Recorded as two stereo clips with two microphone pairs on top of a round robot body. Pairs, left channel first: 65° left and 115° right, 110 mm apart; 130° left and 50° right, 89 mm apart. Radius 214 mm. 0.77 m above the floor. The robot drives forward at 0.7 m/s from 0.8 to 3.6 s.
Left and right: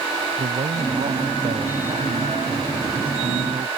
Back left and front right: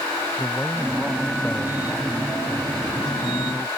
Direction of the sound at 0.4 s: 145° right.